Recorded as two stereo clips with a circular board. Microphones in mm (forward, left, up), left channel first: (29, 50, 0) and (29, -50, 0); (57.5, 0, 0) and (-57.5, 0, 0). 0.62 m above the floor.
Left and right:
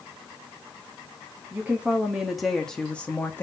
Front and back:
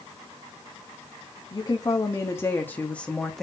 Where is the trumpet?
No trumpet in this recording.